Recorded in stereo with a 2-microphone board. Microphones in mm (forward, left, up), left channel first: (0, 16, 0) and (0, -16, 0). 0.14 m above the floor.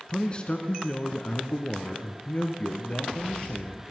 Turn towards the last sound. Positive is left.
turn(degrees=40)  # may be behind; listen again after turning